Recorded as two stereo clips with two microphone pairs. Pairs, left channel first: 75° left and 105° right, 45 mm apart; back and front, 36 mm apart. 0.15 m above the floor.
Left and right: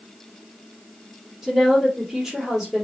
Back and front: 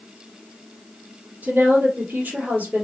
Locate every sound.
1.4 s a woman speaking: 25° right, 2.5 m